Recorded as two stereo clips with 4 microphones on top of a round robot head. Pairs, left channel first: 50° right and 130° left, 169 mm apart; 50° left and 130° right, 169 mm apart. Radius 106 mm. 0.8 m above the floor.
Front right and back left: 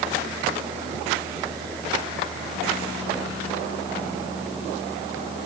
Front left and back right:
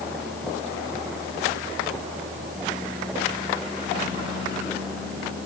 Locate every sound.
Only background noise.